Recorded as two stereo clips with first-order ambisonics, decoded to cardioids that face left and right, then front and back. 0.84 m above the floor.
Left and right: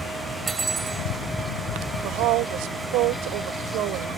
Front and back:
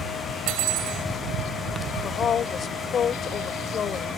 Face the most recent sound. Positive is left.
turn(degrees=-65)